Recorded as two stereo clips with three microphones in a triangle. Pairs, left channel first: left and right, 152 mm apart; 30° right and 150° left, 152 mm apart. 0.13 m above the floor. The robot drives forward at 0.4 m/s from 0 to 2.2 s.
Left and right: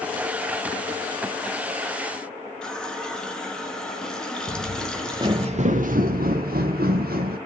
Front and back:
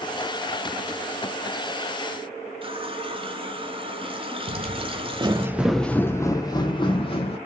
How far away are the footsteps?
About 0.7 m.